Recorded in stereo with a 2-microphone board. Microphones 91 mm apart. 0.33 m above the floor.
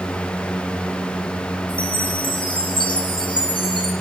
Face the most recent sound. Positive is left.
turn(degrees=70)  # may be behind; listen again after turning